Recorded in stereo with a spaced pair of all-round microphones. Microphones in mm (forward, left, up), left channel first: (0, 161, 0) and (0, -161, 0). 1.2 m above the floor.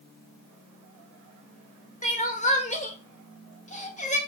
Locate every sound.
2.0 s crying: 20° left (ahead or behind), 2 m